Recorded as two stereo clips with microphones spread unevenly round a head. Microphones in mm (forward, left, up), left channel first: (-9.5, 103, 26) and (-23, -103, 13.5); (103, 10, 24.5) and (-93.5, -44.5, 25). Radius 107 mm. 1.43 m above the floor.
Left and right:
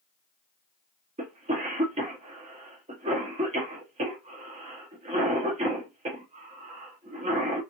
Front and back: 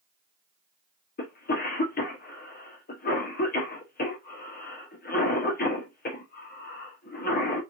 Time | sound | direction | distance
1.2 | a cough | 30° right | 0.8 m